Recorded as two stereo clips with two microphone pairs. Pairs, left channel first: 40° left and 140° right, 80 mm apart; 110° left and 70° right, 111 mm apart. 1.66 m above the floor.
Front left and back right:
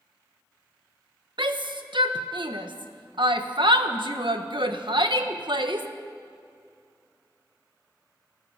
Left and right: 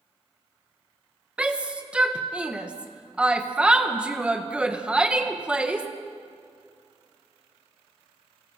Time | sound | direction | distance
1.4 | a shout | 150° right | 1.6 m